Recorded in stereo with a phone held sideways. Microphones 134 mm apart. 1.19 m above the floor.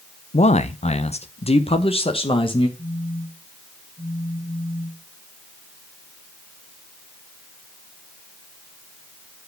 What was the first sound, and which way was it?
A man speaking, 55° left (ahead or behind).